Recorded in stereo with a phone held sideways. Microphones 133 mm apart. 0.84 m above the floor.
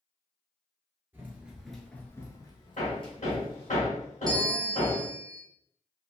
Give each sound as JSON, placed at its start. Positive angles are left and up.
{"t": 1.1, "sound": "running footsteps", "side_deg": -15, "distance_m": 1.0}
{"t": 2.8, "sound": "hammering", "side_deg": 70, "distance_m": 1.5}
{"t": 4.3, "sound": "a bell", "side_deg": -30, "distance_m": 0.6}